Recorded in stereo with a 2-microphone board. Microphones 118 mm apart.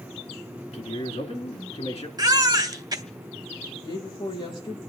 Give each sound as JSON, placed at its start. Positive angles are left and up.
{"t": 0.7, "sound": "a man speaking", "side_deg": 65, "distance_m": 3.0}
{"t": 2.2, "sound": "a baby crying", "side_deg": -35, "distance_m": 1.3}
{"t": 3.8, "sound": "a woman speaking", "side_deg": 45, "distance_m": 9.0}